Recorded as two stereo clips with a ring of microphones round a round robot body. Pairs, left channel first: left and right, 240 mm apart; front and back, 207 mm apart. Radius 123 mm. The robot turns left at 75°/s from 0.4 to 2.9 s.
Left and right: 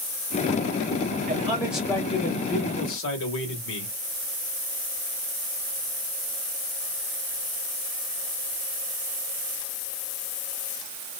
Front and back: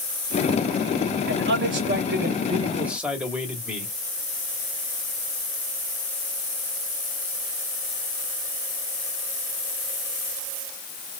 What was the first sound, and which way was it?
A man speaking, 140° right.